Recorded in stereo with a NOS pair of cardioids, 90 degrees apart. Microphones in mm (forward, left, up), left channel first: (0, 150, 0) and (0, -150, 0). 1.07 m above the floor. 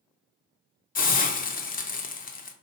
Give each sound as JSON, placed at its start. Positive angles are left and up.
{"t": 0.9, "sound": "a hiss", "azimuth_deg": 30, "distance_m": 0.5}